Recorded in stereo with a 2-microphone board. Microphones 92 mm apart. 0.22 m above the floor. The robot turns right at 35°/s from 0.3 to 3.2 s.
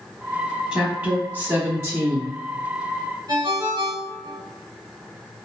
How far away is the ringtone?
About 1.8 m.